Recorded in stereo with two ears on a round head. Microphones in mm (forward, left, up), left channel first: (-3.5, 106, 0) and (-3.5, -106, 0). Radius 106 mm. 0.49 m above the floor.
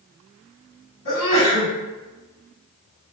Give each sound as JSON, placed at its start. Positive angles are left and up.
{"t": 1.1, "sound": "a sneeze", "side_deg": 55, "distance_m": 1.7}